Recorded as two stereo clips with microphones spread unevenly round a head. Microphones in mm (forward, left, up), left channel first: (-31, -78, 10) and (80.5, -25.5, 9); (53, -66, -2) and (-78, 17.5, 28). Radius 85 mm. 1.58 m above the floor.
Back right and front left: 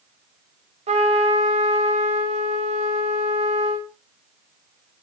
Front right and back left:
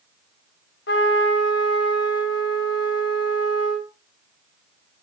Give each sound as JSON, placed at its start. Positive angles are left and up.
{"t": 0.9, "sound": "a trumpet", "azimuth_deg": -5, "distance_m": 5.0}